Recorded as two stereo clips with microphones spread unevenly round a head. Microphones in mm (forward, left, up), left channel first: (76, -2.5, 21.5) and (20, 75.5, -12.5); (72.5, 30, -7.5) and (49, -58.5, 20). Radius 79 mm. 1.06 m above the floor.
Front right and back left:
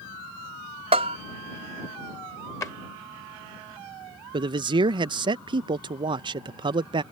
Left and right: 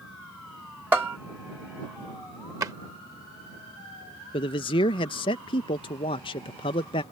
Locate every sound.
0.9 s a bell: 175° left
2.6 s a drawer: 90° right
4.3 s a man speaking: 100° left